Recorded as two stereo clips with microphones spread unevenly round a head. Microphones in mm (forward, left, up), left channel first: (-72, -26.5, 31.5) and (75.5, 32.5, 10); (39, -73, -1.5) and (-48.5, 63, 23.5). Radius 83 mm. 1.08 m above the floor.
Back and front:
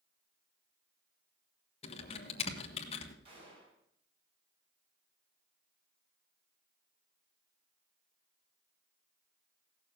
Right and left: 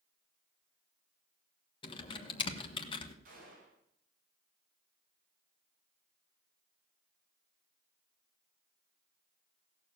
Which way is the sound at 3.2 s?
80° left.